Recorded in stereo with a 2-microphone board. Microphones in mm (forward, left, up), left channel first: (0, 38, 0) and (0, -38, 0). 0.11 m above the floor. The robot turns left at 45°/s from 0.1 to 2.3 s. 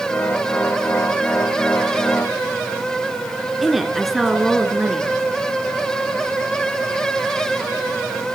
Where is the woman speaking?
Centre (ahead or behind), 1.6 m.